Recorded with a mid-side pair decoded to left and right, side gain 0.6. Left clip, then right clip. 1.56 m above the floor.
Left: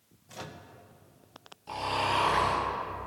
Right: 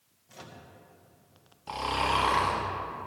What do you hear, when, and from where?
0.3 s a microwave: 25° left, 1.3 m
1.7 s snoring: 30° right, 4 m